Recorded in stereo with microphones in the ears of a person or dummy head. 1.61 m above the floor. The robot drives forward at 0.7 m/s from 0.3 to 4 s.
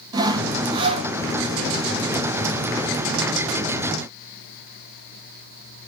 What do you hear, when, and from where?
0.1 s sawing: 30° right (ahead or behind), 1.7 m; by 1.1 s 40° right (ahead or behind), 1.3 m